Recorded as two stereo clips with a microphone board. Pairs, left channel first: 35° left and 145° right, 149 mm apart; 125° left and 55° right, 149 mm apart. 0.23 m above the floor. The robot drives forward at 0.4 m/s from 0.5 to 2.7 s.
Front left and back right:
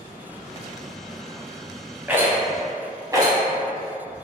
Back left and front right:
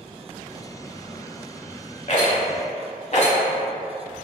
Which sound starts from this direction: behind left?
A rattle, at 2.1 s.